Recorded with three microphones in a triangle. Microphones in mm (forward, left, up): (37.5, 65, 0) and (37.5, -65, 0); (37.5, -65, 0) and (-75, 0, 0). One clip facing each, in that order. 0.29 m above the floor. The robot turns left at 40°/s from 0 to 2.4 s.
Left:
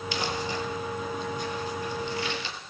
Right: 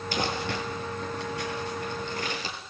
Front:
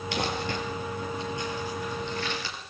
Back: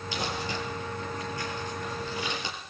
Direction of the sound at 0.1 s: 50° right.